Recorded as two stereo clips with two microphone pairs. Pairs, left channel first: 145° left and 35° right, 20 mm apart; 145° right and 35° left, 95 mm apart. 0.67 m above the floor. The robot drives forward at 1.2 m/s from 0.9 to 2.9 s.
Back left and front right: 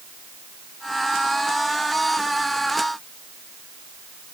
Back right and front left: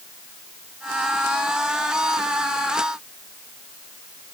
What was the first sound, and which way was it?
Only background noise.